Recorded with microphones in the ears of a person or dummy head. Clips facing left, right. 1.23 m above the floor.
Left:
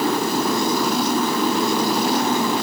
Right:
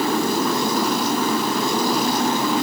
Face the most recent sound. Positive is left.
No sound to turn to.